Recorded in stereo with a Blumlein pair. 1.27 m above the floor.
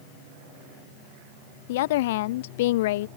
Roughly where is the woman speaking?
Ahead left.